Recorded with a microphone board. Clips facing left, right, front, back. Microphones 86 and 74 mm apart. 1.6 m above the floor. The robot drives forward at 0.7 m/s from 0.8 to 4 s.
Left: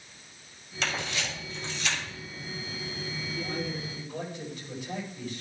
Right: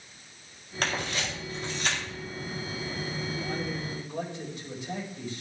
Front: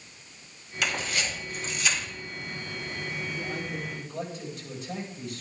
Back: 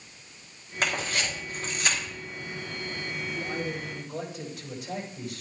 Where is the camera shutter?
130° right, 8 m; by 2.0 s 135° right, 9 m.